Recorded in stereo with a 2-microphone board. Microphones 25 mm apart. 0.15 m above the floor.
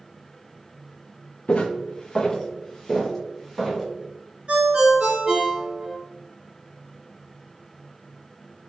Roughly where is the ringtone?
Right.